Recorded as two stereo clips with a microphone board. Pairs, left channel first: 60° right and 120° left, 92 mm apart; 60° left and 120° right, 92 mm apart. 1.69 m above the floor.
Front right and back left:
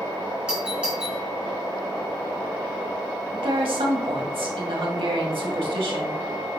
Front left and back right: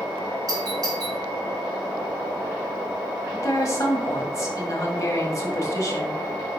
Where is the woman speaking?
115° left, 1.6 m.